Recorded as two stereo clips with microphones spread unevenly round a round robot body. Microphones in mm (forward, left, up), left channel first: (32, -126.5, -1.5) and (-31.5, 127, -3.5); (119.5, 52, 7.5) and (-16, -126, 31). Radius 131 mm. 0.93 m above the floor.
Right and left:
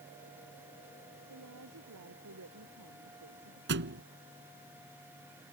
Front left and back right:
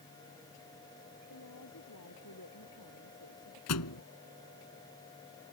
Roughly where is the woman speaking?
Left.